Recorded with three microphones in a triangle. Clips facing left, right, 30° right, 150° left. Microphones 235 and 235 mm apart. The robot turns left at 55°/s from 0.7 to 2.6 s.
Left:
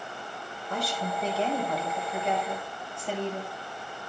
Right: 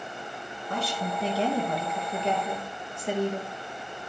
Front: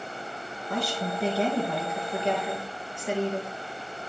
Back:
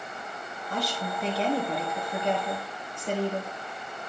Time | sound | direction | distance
0.7 | a woman speaking | 55° right | 4 m